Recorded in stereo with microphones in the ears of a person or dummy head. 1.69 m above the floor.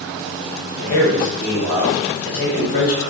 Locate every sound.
0.8 s a man speaking: 35° left (ahead or behind), 0.9 m